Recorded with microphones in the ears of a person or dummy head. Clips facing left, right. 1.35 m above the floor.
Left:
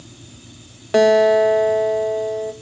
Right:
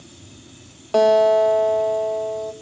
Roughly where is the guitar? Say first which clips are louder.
Left 2 dB; left.